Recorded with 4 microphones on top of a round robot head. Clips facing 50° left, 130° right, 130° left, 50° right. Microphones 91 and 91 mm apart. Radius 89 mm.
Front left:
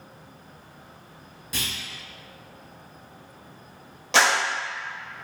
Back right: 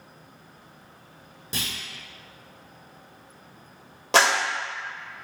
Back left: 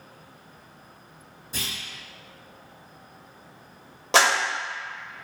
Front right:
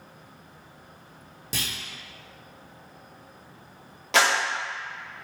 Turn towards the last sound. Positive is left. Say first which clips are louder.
# back right 1 dB, back left 2 dB
turn(degrees=-175)